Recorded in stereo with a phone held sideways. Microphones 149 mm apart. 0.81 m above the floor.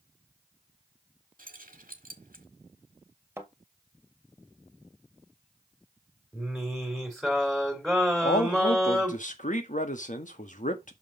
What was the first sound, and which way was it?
Keys jangling, 70° right (ahead or behind).